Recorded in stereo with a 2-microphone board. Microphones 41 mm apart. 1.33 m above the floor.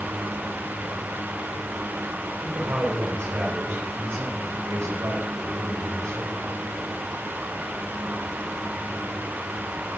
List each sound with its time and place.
2.4 s a man speaking: 65° right (ahead or behind), 5.5 m; by 6.5 s 85° right, 6 m